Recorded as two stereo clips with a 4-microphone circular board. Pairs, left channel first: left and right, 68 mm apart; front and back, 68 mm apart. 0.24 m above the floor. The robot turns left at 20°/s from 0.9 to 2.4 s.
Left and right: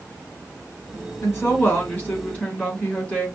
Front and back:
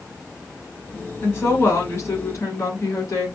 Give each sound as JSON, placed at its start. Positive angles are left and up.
{"t": 1.2, "sound": "a woman speaking", "azimuth_deg": 50, "distance_m": 2.5}